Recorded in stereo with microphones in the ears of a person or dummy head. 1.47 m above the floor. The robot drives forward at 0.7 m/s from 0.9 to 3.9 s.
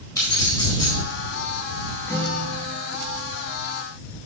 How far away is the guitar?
About 4 m.